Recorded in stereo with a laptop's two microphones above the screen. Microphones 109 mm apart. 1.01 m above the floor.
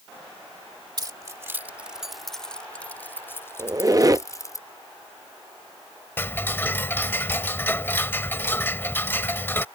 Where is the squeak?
35° right (ahead or behind).